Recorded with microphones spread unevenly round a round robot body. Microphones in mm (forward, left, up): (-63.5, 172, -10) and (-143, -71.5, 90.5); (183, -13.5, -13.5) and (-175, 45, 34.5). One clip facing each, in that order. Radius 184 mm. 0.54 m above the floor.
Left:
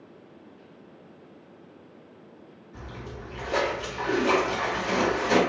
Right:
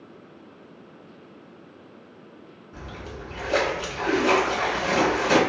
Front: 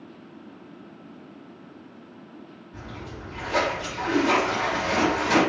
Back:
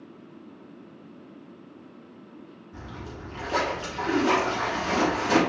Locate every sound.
2.7 s a splash: 120° right, 1.5 m